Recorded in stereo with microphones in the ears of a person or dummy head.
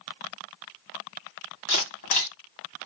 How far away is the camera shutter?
About 1.5 m.